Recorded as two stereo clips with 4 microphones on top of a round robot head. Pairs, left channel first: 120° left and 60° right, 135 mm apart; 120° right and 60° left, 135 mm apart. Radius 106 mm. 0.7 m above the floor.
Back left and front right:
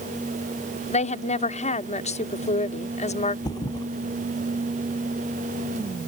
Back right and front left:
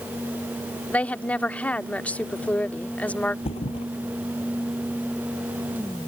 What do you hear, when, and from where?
0.9 s a woman speaking: 155° left
3.5 s a thud: 175° right